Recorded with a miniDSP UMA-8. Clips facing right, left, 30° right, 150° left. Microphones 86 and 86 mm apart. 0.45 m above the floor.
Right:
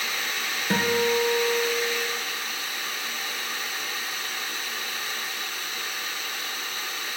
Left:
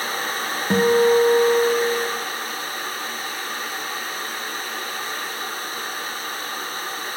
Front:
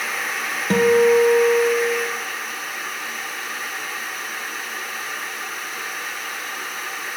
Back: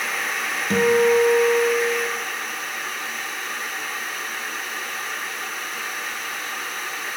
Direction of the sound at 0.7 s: 20° left.